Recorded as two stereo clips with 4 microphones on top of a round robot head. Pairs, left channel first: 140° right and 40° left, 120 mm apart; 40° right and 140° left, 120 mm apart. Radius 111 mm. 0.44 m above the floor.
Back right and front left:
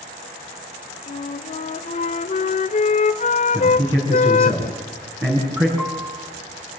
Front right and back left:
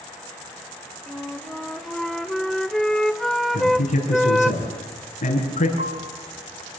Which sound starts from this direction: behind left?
A piano, at 5.8 s.